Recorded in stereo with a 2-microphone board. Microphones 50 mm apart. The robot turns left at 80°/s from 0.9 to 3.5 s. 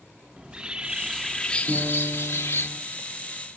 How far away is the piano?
About 9.5 m.